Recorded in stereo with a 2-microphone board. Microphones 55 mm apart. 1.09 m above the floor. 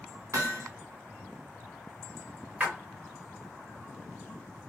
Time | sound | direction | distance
0.3 | hammering | 60° right (ahead or behind) | 1.3 m
2.6 | a splash | 30° right (ahead or behind) | 1.5 m